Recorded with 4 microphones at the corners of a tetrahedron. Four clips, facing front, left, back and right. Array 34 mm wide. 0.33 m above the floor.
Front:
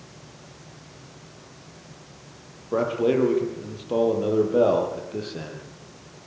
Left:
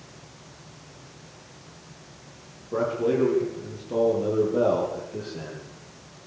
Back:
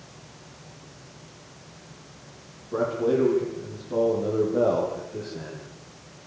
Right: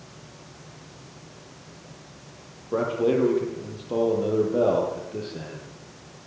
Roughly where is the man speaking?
Ahead right.